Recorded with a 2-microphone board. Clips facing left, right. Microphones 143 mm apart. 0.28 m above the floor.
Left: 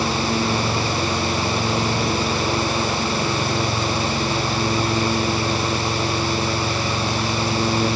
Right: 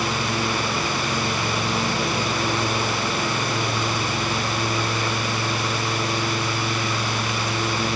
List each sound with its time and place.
Only background noise.